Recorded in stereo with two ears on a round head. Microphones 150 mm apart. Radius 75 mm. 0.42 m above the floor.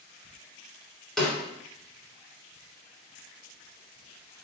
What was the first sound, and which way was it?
A snare drum, centre (ahead or behind).